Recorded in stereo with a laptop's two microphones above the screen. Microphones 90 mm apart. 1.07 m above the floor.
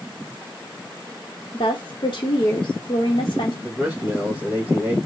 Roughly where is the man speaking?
Centre.